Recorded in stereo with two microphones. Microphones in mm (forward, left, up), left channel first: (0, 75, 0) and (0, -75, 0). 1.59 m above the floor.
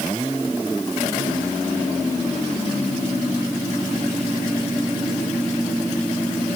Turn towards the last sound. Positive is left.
No sound to turn to.